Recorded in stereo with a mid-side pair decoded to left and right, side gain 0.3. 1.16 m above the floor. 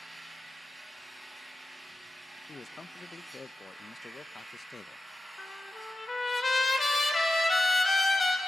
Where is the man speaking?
45° left, 0.6 m.